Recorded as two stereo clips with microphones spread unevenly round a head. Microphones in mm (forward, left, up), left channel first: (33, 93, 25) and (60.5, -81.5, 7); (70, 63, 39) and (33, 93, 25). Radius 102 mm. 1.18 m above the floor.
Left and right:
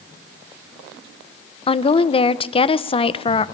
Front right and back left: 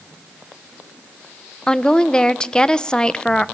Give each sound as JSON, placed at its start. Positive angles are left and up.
{"t": 1.7, "sound": "a woman speaking", "azimuth_deg": 40, "distance_m": 0.8}